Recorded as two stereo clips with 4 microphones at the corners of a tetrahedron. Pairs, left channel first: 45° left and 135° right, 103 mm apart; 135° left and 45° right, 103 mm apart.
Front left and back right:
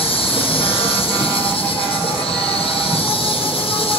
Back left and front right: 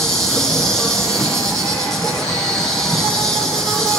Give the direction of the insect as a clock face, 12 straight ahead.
10 o'clock.